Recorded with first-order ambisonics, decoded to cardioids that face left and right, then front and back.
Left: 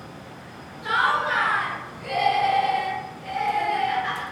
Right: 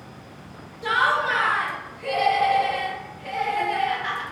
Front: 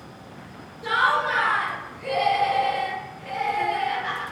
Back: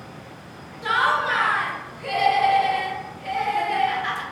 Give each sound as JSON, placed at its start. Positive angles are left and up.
{"t": 0.8, "sound": "laughter", "azimuth_deg": -160, "distance_m": 0.9}